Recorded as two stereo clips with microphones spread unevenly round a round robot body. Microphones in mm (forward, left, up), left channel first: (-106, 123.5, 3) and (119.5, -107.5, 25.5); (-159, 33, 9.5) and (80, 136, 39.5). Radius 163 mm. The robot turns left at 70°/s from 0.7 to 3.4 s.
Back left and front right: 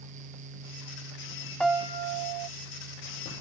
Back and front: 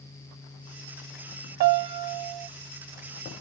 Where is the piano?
45° left; by 2.5 s 15° right.